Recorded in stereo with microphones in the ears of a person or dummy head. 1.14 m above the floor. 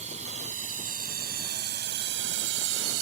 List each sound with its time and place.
0.0 s a drone: 35° right (ahead or behind); by 3.0 s 75° right (ahead or behind)